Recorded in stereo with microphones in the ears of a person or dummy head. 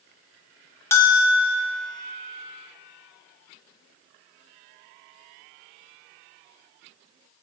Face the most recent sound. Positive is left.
turn(degrees=10)  # may be behind; listen again after turning